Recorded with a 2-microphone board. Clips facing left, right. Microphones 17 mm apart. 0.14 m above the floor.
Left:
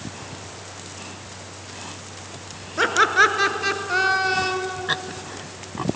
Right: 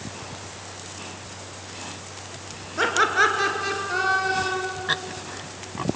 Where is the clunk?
I don't hear a clunk.